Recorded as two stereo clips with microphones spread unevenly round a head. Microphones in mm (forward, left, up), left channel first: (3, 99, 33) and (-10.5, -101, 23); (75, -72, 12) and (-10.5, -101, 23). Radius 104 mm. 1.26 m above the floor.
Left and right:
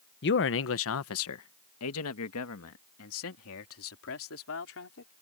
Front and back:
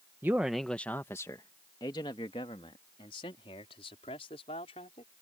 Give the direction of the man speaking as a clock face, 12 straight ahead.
8 o'clock.